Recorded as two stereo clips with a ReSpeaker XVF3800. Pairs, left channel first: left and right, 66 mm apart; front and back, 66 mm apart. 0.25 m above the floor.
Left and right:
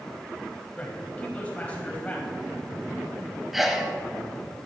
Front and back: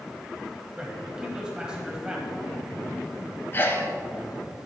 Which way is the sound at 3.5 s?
5° right.